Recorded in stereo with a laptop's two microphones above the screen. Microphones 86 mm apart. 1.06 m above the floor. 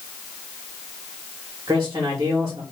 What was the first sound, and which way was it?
A man speaking, 50° right (ahead or behind).